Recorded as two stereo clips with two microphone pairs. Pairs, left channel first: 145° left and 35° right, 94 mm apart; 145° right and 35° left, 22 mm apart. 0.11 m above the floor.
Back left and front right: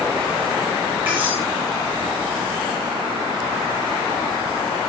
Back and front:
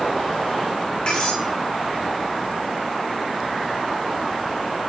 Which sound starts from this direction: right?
Cutlery clinking, at 1.1 s.